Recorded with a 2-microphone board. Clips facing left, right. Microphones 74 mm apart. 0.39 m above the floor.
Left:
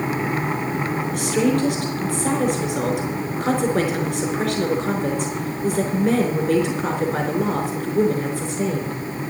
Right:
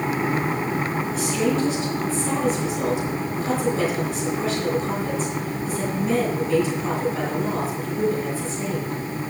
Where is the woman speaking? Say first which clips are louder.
Left 3 dB; 65° left (ahead or behind), 4.5 m.